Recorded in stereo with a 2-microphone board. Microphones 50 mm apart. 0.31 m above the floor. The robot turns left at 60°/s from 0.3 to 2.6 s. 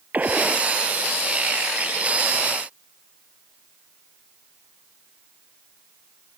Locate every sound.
0.1 s a gunshot: 35° right (ahead or behind); by 0.7 s 10° right (ahead or behind)